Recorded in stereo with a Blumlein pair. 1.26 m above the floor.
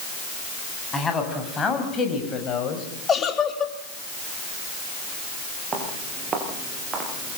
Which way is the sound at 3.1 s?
20° left.